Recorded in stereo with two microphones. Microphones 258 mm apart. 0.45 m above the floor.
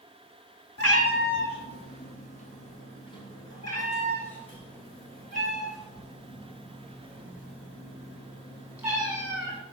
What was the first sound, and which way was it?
A cat meowing, 65° left (ahead or behind).